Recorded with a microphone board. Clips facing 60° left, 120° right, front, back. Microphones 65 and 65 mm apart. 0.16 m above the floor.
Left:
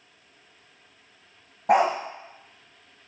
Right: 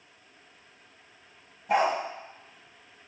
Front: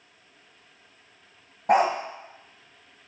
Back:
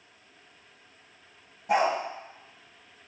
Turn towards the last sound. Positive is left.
turn(degrees=40)